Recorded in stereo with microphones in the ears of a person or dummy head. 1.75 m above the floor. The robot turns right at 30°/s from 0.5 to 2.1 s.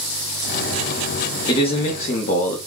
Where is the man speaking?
30° left (ahead or behind), 0.7 m; by 2.6 s 50° left (ahead or behind), 0.7 m.